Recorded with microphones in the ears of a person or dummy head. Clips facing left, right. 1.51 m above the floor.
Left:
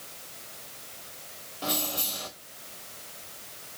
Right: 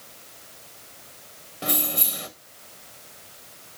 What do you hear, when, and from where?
1.6 s keys jangling: 25° right (ahead or behind), 0.9 m